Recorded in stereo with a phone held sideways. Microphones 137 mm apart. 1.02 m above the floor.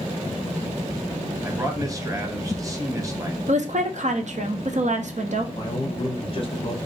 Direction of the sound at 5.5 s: 40° left (ahead or behind).